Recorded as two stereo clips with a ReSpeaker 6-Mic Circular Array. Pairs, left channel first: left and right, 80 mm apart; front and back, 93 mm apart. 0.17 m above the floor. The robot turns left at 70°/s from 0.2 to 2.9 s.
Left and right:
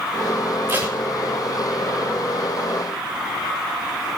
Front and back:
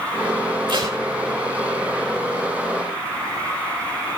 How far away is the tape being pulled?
About 6.5 m.